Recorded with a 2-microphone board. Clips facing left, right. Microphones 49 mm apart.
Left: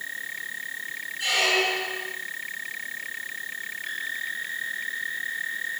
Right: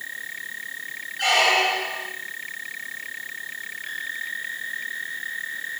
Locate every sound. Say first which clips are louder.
1.2 s a squeak: right 4 dB; 70° right (ahead or behind), 2 m